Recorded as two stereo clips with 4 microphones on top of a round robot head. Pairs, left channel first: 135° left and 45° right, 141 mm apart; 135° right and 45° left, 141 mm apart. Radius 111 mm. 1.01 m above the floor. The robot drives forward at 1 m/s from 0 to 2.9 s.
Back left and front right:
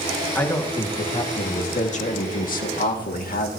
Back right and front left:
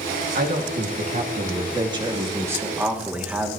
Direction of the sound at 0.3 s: 60° left.